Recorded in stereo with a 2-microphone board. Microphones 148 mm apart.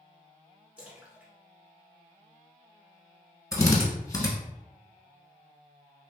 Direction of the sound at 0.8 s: 10° right (ahead or behind).